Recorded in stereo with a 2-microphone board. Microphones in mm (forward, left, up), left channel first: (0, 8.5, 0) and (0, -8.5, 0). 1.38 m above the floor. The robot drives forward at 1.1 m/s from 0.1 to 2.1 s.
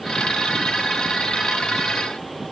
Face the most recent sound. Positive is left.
No sound to turn to.